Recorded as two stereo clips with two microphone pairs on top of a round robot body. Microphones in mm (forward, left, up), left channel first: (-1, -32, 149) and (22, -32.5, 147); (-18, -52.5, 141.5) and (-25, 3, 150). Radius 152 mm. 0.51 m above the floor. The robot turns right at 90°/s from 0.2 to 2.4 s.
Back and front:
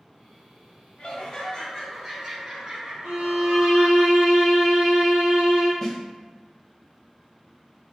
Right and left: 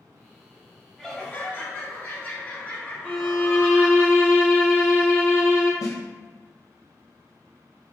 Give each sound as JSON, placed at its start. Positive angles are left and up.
{"t": 1.0, "sound": "laughter", "azimuth_deg": -170, "distance_m": 1.9}
{"t": 3.0, "sound": "a violin", "azimuth_deg": 35, "distance_m": 1.0}
{"t": 5.8, "sound": "a snare drum", "azimuth_deg": -115, "distance_m": 0.7}